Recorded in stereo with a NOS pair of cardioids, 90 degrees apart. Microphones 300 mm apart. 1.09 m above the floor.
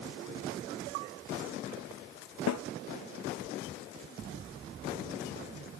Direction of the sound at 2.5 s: 65° left.